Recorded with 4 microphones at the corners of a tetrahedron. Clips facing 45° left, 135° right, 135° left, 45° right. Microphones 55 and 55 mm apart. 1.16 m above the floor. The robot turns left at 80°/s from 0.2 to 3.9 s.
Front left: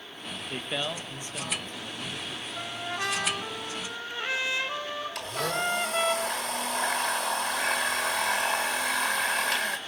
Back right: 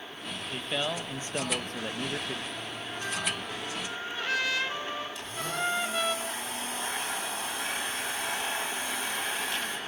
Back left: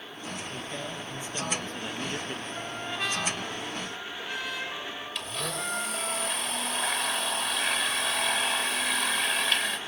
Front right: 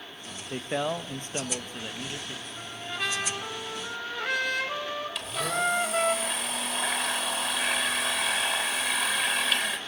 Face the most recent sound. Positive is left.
turn(degrees=45)